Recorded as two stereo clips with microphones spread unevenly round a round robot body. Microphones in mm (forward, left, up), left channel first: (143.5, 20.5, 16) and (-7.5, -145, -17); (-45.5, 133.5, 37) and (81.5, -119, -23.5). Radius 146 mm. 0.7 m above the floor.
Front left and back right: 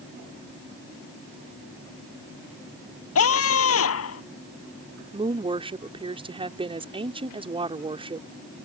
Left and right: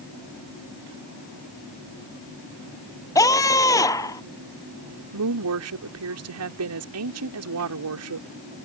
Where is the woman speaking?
70° right.